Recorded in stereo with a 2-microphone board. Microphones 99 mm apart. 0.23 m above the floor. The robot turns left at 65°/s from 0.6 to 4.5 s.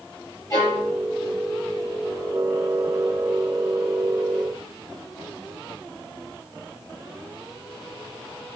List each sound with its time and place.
0.5 s a violin: 40° left (ahead or behind), 4.5 m; by 0.9 s 20° left (ahead or behind), 4.5 m